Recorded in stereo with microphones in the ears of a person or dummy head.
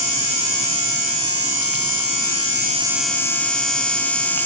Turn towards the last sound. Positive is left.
No sound to turn to.